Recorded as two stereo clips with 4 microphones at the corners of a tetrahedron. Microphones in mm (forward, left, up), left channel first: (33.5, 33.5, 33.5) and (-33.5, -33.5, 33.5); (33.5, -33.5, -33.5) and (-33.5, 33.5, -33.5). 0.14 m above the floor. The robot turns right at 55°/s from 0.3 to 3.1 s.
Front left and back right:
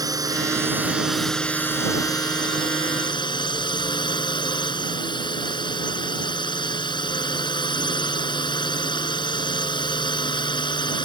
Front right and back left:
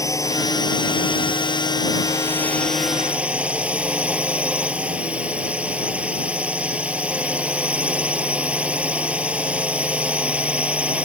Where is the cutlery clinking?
I don't hear cutlery clinking.